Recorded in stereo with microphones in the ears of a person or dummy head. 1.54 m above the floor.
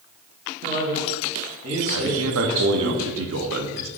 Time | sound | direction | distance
0.6 | a man speaking | 50° right (ahead or behind) | 0.9 m
1.9 | a man speaking | 80° right | 0.7 m